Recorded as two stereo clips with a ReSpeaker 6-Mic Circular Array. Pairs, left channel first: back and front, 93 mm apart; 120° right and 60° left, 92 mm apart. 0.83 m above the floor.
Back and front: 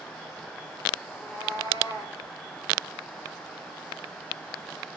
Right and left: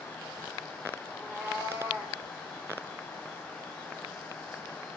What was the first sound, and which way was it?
A cat meowing, 135° left.